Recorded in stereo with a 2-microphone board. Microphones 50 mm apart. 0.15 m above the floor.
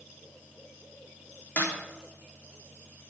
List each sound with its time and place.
1.6 s a snare drum: 40° left (ahead or behind), 4 m